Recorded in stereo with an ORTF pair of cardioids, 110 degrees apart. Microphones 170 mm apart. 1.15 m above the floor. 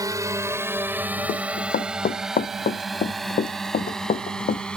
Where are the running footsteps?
55° left.